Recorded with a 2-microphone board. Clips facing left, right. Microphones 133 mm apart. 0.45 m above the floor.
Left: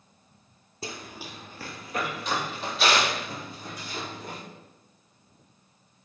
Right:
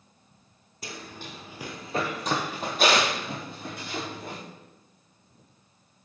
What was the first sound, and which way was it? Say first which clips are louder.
Running footsteps: left 1 dB; 30° left (ahead or behind).